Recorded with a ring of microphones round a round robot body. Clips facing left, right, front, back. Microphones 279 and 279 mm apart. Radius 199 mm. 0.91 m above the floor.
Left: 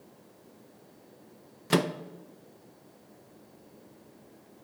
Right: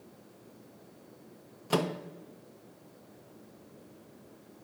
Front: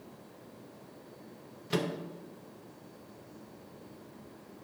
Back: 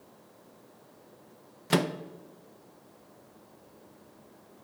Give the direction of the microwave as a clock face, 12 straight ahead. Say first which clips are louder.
Left 3 dB, back 5 dB; 7 o'clock.